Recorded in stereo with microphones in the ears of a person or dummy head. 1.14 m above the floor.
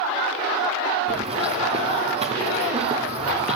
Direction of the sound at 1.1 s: 35° right (ahead or behind).